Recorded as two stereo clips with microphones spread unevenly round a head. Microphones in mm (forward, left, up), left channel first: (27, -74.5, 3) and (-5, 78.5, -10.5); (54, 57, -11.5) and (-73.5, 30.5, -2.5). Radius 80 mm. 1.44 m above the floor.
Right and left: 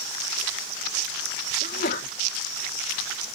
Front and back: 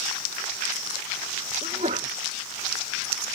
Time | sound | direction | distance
1.6 | a sneeze | 115° right | ?